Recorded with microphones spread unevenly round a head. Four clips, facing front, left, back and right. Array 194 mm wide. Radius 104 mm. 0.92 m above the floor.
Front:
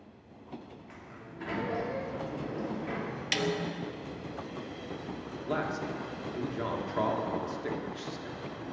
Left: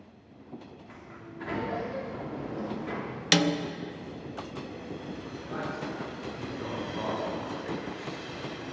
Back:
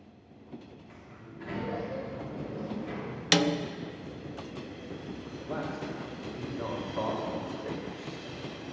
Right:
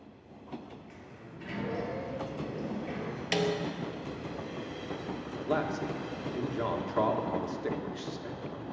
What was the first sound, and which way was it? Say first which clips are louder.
A sliding door: left 3 dB, front 1 dB; 60° left.